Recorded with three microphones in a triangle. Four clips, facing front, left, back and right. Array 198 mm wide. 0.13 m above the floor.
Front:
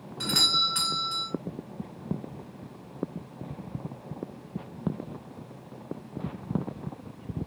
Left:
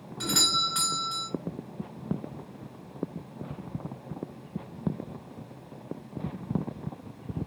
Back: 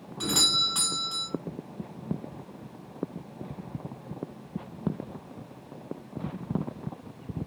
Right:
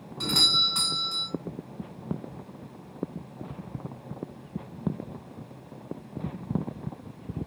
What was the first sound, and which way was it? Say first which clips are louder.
A doorbell: left 1 dB, even; 130° right.